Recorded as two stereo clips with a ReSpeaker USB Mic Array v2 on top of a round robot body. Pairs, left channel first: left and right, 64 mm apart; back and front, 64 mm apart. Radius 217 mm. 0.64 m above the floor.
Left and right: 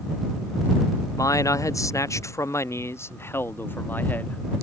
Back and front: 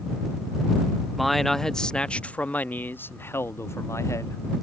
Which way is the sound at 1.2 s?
90° left.